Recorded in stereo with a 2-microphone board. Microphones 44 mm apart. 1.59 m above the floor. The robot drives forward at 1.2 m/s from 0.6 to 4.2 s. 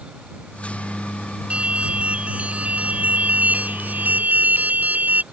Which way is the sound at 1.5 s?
30° right (ahead or behind).